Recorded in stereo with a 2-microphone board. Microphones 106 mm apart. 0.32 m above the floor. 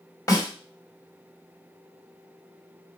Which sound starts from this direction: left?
A snare drum, at 0.3 s.